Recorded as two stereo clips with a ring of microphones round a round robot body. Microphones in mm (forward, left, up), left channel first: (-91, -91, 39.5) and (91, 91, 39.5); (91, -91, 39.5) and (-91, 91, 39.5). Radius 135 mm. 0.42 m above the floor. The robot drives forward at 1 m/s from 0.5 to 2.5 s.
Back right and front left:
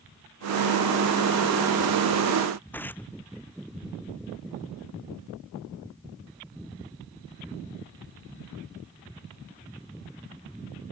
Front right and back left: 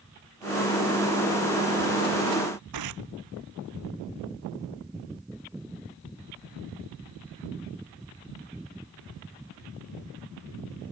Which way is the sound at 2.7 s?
140° left.